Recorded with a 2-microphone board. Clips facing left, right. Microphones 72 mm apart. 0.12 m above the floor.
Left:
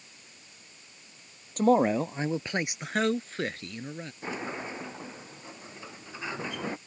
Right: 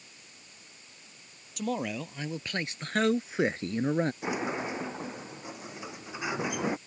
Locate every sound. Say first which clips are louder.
1.6 s a man speaking: left 10 dB; 45° left (ahead or behind); by 4.1 s 45° right (ahead or behind)
4.2 s a sliding door: right 4 dB; 15° right (ahead or behind)